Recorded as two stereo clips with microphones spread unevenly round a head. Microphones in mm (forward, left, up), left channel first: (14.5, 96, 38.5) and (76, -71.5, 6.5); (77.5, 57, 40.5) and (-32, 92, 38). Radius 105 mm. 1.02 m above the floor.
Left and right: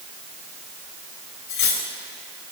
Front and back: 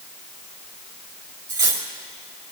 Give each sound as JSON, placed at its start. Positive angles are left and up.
{"t": 1.5, "sound": "cutlery clinking", "azimuth_deg": 110, "distance_m": 3.0}